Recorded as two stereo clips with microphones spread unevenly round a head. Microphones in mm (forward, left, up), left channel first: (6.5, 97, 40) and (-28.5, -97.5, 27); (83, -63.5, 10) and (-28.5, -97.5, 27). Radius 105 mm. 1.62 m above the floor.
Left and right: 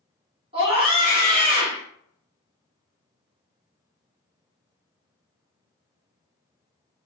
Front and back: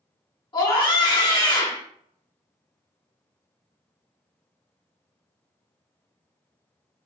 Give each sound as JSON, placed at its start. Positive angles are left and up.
{"t": 0.5, "sound": "a scream", "azimuth_deg": -35, "distance_m": 4.0}